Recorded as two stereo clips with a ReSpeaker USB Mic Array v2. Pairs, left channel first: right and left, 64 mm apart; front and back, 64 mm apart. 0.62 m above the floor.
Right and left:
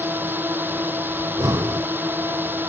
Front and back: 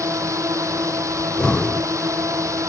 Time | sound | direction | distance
0.0 | a drone | 145° left | ?
1.2 | breathing | 75° left | ?